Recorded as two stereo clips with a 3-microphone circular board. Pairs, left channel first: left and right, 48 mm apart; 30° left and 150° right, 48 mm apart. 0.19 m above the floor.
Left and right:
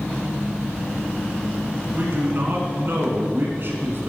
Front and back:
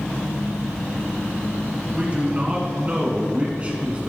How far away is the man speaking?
About 1.6 m.